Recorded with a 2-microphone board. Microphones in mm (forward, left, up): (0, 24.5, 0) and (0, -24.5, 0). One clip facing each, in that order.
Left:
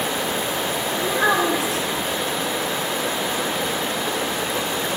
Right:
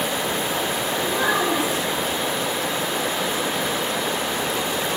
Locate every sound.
1.0 s a child speaking: 65° left (ahead or behind), 1.1 m